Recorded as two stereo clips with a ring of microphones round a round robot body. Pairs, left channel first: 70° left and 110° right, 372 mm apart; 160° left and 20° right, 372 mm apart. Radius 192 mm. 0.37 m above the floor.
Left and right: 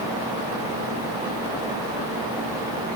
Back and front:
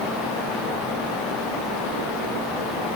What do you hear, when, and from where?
Only background noise.